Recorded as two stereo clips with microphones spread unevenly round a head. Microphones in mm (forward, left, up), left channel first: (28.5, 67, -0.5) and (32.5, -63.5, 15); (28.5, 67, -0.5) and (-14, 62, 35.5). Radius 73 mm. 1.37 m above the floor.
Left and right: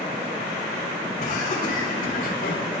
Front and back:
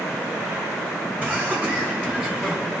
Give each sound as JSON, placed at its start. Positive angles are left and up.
{"t": 1.2, "sound": "laughter", "azimuth_deg": 140, "distance_m": 6.5}